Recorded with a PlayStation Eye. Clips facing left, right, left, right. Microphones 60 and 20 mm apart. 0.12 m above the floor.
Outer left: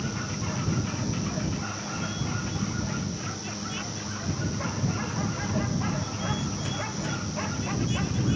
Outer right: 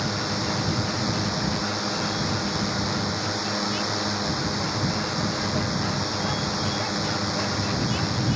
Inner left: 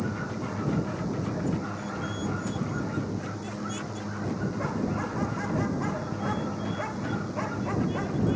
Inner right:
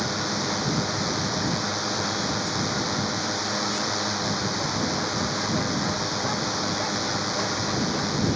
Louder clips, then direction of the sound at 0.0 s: Outer right 5 dB, inner right 6 dB; 75° right (ahead or behind).